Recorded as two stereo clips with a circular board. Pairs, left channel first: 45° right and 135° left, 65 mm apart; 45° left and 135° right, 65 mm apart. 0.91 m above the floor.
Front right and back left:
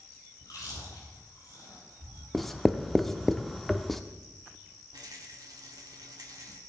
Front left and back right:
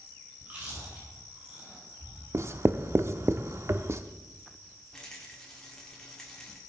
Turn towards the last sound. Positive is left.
turn(degrees=125)